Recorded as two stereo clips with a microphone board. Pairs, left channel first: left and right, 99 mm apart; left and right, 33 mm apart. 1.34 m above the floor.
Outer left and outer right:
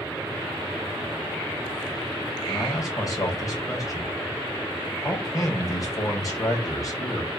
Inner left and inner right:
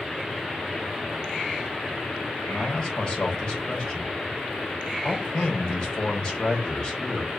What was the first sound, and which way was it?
A man speaking, 35° left (ahead or behind).